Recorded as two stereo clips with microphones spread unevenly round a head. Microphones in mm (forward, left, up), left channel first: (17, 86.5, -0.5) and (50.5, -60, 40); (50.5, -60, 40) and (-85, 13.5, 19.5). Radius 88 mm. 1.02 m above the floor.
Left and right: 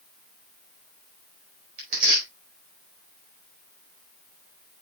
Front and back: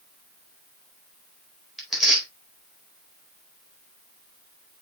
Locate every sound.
1.8 s tearing paper: 120° right, 4 m